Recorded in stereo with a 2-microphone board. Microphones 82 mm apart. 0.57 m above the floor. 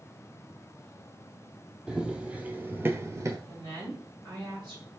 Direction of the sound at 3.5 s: 75° right (ahead or behind).